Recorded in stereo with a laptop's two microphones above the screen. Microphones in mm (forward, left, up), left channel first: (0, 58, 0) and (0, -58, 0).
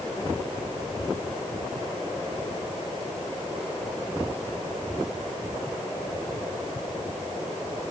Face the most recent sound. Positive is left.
No sound to turn to.